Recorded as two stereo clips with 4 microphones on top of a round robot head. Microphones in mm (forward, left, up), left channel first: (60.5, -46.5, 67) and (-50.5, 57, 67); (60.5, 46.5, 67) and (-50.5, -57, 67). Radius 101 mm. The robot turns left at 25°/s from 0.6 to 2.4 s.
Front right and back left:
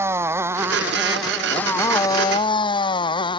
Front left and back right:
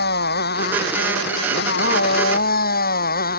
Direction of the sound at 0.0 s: 60° left.